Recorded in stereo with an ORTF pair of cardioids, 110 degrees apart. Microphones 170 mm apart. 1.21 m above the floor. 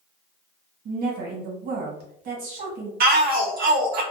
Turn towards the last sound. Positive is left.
turn(degrees=-65)